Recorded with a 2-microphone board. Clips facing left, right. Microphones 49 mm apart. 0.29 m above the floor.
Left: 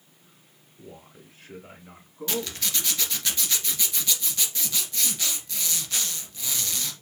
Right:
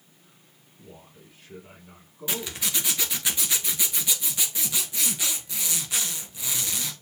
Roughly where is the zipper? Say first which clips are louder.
Left 1 dB; centre.